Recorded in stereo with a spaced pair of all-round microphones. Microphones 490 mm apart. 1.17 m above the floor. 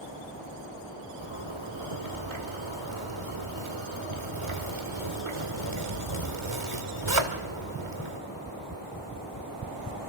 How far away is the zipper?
About 1.8 m.